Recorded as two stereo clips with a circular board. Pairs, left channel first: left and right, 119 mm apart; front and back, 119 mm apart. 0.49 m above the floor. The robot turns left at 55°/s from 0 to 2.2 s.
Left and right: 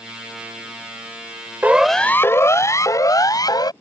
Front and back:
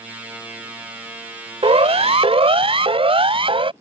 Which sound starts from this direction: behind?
A siren, at 1.6 s.